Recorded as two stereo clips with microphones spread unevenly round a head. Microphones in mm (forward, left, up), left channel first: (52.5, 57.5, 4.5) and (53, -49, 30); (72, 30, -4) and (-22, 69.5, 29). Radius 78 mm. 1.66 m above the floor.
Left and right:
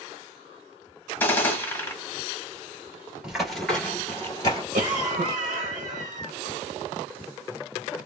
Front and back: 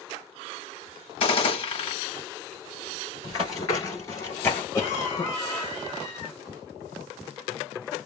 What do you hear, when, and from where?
1.2 s a gunshot: 15° left, 1.2 m
3.2 s running footsteps: 70° right, 1.7 m; by 4.6 s 60° left, 1.8 m
4.7 s a cough: 90° right, 0.8 m